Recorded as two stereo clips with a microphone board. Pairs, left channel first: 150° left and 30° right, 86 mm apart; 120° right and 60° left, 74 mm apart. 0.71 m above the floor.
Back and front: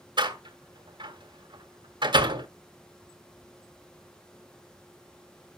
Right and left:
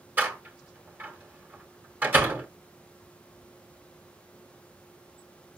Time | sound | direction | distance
0.2 | a door slam | 10° right | 1.8 m